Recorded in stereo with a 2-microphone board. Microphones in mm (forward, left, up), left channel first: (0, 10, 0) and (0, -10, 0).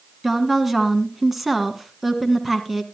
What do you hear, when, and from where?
0.2 s a woman speaking: 10° right (ahead or behind), 1.3 m